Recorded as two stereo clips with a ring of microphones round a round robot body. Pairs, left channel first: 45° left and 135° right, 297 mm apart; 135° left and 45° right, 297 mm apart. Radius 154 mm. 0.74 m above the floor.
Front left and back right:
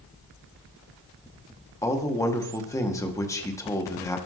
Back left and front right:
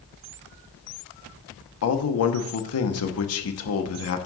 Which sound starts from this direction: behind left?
A man speaking, at 1.8 s.